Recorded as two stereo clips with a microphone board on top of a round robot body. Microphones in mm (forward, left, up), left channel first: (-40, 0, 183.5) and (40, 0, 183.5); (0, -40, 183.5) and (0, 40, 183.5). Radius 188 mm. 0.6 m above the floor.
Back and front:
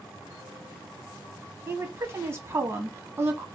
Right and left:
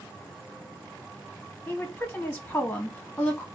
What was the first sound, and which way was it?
A woman speaking, 30° right.